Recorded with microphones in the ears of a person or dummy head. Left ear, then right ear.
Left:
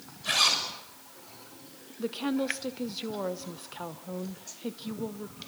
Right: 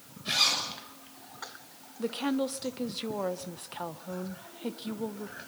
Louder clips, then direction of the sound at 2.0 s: Even; 10° right (ahead or behind).